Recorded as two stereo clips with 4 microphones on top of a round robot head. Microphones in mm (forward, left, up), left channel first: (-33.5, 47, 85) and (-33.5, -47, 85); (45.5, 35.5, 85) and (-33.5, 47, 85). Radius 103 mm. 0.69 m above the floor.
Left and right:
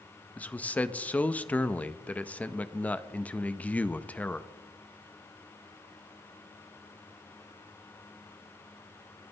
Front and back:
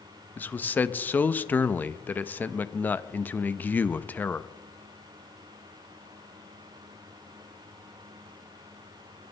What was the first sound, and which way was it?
A man speaking, 35° left.